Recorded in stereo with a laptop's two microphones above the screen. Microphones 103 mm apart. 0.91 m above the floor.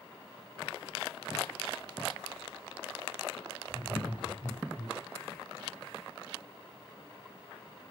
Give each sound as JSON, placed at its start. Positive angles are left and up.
{"t": 3.7, "sound": "laughter", "side_deg": -50, "distance_m": 5.0}